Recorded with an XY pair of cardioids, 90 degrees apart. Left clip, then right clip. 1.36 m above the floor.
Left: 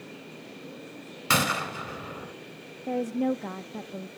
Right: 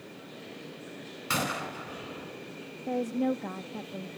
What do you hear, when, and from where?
1.3 s a gunshot: 60° left, 3.5 m
2.9 s a woman speaking: 15° left, 0.5 m